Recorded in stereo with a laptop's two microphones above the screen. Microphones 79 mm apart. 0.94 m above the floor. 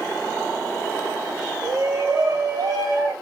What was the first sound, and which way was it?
A shout, 45° right (ahead or behind).